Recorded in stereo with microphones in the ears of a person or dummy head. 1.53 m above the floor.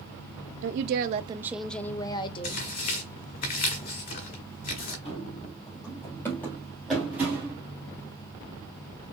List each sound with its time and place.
0.6 s a woman speaking: 65° right (ahead or behind), 0.6 m; by 2.6 s 40° left (ahead or behind), 1.0 m
2.4 s tearing paper: 45° left (ahead or behind), 2 m
5.0 s running footsteps: 35° left (ahead or behind), 2.5 m; by 7.6 s 15° right (ahead or behind), 2 m